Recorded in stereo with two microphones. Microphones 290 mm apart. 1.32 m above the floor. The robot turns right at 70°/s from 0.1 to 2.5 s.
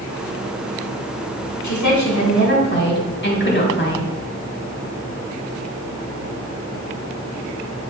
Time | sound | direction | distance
1.6 | a woman speaking | 80° left | 1.9 m